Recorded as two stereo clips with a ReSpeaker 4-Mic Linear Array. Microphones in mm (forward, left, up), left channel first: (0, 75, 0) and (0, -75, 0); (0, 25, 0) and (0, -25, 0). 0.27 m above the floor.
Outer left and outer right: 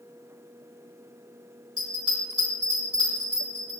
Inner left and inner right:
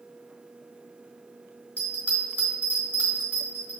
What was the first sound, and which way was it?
A bell, 35° right (ahead or behind).